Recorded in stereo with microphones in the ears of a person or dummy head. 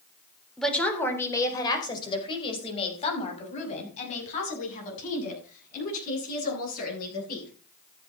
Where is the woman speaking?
Centre (ahead or behind), 3.5 m; by 7.5 s 50° left (ahead or behind), 12.5 m.